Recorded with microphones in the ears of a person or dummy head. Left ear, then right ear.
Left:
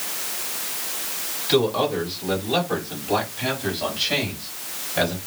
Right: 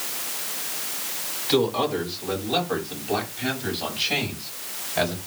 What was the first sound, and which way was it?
A man speaking, centre (ahead or behind).